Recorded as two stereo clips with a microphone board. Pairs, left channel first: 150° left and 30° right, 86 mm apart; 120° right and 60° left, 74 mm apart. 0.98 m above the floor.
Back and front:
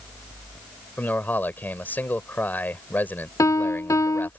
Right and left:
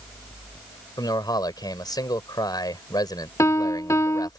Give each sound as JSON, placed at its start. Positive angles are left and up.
{"t": 1.0, "sound": "a man speaking", "azimuth_deg": -140}
{"t": 3.4, "sound": "a piano", "azimuth_deg": -160}